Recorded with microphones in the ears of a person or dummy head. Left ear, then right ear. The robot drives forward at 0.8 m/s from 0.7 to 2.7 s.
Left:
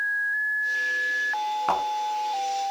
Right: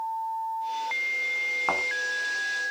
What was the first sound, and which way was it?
A thud, 10° right (ahead or behind).